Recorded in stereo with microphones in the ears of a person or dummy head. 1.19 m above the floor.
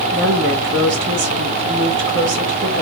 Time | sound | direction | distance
0.1 | a woman speaking | 65° right (ahead or behind) | 1.4 m